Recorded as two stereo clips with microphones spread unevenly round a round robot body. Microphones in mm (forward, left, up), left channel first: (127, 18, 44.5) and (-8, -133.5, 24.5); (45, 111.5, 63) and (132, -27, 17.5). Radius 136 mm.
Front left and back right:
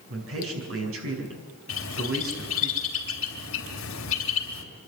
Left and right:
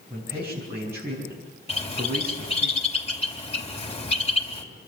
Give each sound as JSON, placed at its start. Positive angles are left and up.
{"t": 0.1, "sound": "a man speaking", "azimuth_deg": -135, "distance_m": 5.5}
{"t": 1.7, "sound": "a bird", "azimuth_deg": 65, "distance_m": 3.0}